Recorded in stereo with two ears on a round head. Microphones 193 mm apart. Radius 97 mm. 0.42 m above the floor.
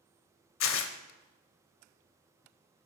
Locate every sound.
0.6 s tearing paper: 60° left (ahead or behind), 0.5 m